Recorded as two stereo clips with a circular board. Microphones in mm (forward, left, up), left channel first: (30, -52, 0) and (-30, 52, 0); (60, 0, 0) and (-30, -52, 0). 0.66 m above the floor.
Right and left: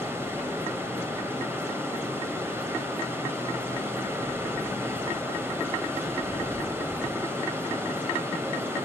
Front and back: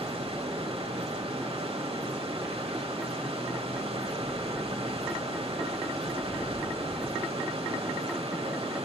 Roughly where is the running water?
Behind.